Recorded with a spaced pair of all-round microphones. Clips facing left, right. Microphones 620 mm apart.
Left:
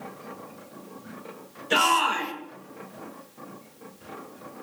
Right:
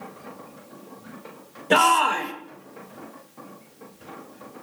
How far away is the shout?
About 1.4 m.